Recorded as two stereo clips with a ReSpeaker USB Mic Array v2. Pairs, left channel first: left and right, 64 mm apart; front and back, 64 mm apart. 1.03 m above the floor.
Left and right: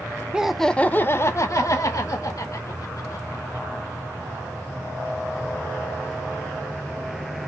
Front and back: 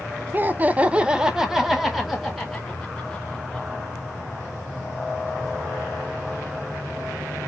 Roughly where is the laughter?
Behind right.